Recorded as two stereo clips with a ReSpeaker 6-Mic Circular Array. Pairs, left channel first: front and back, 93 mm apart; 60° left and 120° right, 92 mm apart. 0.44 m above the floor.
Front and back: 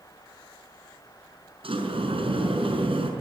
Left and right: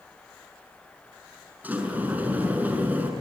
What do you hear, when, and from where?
1.6 s a sliding door: 170° left, 5.5 m